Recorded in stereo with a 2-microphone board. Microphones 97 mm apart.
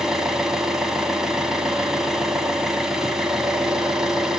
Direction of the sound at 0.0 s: 5° right (ahead or behind).